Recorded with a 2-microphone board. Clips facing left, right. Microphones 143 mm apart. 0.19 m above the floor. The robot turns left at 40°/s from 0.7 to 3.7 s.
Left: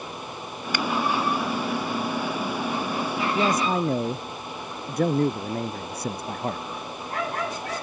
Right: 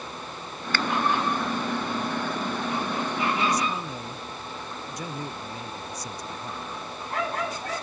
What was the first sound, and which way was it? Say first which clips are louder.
A finger snap: left 1 dB; 15° left (ahead or behind).